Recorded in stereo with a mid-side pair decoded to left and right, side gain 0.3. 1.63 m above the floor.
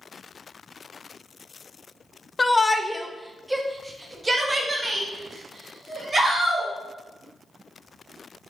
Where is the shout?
35° left, 0.6 m; by 6.7 s 45° right, 2.5 m.